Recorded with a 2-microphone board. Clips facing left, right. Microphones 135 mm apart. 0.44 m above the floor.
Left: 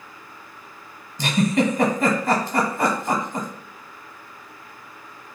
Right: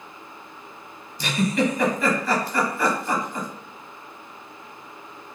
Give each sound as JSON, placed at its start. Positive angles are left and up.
{"t": 1.2, "sound": "a giggle", "side_deg": 45, "distance_m": 0.9}